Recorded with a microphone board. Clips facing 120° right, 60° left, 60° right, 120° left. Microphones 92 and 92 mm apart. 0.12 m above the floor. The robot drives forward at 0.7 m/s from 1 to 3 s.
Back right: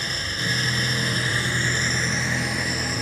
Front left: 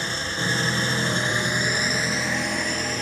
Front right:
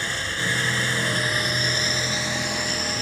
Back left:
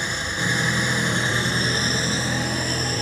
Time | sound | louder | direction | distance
0.0 | an engine running | front left 2 dB, back left 2 dB | 70° left | 0.9 m